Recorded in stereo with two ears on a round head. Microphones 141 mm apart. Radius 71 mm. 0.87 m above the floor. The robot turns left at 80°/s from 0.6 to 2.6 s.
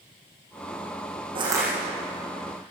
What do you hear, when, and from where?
1.4 s crushing: 35° right (ahead or behind), 8.5 m; by 1.7 s 5° right (ahead or behind), 8.5 m